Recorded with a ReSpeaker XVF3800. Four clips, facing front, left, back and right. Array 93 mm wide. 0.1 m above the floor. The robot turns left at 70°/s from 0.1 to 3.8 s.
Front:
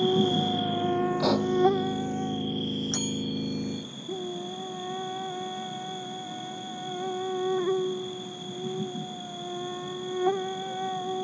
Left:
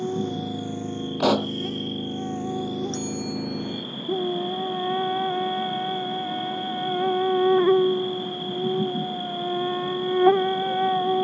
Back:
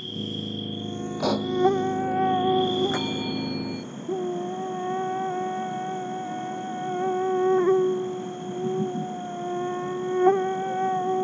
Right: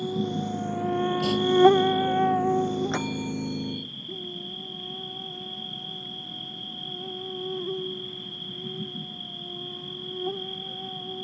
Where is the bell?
125° right; by 3.9 s 175° left.